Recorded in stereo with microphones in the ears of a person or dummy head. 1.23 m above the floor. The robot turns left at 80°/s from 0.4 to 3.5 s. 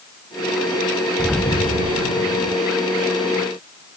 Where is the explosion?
170° right; by 2.6 s 80° left.